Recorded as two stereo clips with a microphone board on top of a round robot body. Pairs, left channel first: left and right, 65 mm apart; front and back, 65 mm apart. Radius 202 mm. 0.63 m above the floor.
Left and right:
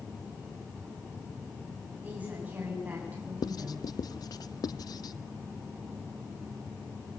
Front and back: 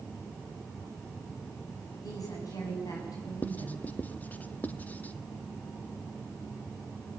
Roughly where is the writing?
Left.